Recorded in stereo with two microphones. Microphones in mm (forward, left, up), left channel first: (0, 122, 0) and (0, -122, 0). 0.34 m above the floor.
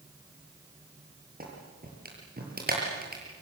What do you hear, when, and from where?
1.4 s a clap: 40° right (ahead or behind), 6.5 m